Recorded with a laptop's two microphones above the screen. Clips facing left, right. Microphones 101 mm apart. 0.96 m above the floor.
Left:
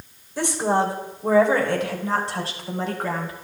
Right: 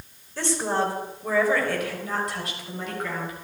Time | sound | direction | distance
0.4 | a woman speaking | 15° left (ahead or behind) | 3 m